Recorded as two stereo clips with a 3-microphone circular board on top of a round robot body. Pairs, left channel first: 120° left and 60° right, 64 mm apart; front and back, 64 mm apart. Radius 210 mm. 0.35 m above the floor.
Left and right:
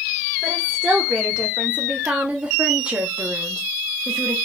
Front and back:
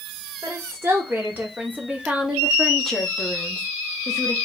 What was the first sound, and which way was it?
A woman speaking, 135° right.